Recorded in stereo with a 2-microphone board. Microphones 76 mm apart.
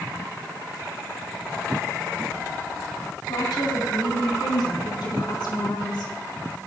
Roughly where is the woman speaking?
Left.